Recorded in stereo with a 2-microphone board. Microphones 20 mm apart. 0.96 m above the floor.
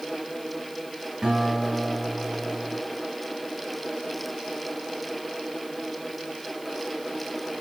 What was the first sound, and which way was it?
A guitar, 40° right (ahead or behind).